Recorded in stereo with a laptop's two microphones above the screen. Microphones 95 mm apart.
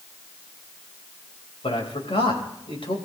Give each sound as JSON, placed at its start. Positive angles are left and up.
{"t": 1.6, "sound": "a man speaking", "side_deg": 70, "distance_m": 4.5}